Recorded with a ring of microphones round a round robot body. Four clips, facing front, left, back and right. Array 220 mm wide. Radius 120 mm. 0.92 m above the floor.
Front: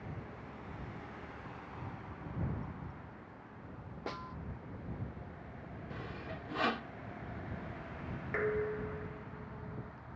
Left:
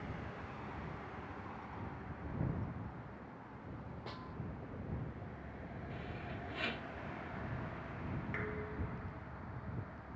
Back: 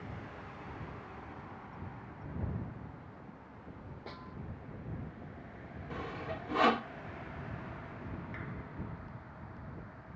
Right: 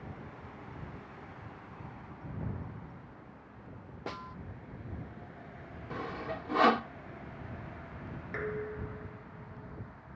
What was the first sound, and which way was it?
A snare drum, 60° right.